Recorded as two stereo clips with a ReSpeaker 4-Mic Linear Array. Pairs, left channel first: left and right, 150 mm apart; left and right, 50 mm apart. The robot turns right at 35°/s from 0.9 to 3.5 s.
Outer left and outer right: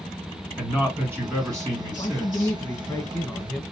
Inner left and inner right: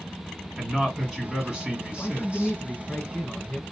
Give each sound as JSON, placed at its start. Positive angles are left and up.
{"t": 0.6, "sound": "a man speaking", "azimuth_deg": -155, "distance_m": 1.8}
{"t": 1.9, "sound": "a man speaking", "azimuth_deg": 115, "distance_m": 1.6}